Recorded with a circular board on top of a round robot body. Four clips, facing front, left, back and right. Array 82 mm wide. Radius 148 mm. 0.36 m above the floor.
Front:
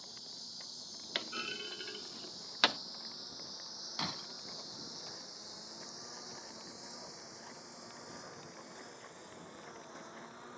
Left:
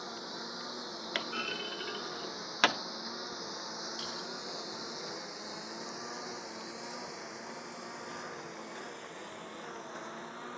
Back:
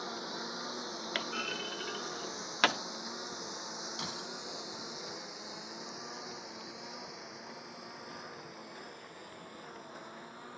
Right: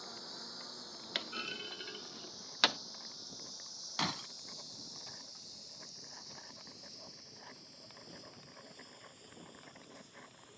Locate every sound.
0.0 s a lawn mower: 155° left; by 10.6 s 100° left
1.1 s a clunk: 130° left
4.0 s breaking glass: 75° right